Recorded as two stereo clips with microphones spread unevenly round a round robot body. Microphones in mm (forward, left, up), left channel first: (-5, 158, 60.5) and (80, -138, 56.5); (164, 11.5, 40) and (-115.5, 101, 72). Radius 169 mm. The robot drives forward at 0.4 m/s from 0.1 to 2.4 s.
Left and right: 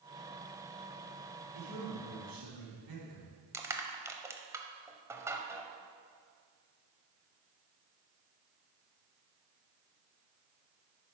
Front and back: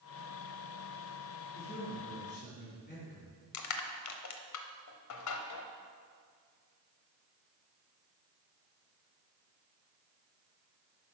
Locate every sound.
1.5 s a man speaking: 75° right, 4 m; by 3.3 s 80° right, 3.5 m
3.5 s crushing: 10° left, 0.9 m